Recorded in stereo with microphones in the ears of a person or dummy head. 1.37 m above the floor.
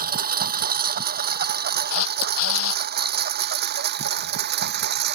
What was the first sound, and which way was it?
A lawn mower, 50° right (ahead or behind).